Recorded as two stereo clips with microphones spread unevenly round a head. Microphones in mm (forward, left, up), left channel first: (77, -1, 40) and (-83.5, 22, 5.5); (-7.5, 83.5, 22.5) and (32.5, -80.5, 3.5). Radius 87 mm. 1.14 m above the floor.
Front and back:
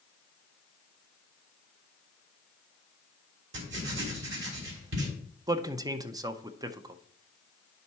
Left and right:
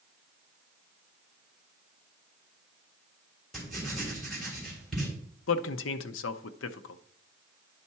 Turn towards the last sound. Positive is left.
turn(degrees=110)